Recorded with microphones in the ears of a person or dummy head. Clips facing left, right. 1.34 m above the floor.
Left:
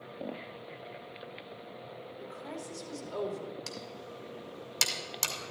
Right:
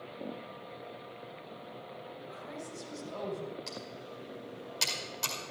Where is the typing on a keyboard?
65° left (ahead or behind), 1.9 m.